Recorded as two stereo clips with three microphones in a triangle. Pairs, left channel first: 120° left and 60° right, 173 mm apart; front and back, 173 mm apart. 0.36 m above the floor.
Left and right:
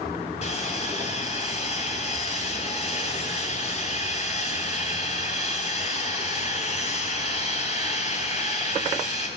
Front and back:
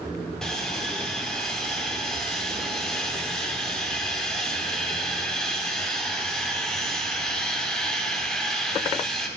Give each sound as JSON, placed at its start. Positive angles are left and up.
{"t": 0.4, "sound": "sawing", "azimuth_deg": 85, "distance_m": 2.5}